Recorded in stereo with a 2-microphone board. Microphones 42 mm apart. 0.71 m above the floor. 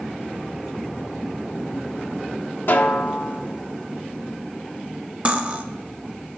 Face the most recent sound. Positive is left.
turn(degrees=-35)  # may be behind; listen again after turning